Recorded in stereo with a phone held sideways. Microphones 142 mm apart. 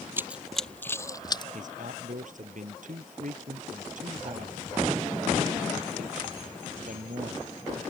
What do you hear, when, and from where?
0.2 s running footsteps: 15° right (ahead or behind); by 1.4 s 30° left (ahead or behind)
1.5 s a man speaking: 65° right (ahead or behind)